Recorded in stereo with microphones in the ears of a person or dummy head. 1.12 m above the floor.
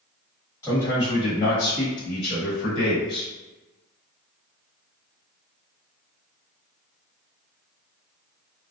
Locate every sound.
0.6 s a man speaking: 10° left (ahead or behind), 1.3 m; by 3.3 s 75° left (ahead or behind), 1.5 m